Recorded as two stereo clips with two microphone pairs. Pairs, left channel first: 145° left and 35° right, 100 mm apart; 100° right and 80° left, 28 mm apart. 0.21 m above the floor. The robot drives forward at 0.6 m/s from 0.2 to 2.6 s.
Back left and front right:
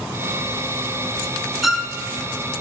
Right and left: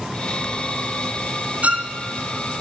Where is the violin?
55° left, 1.2 m; by 1.9 s 60° left, 1.1 m.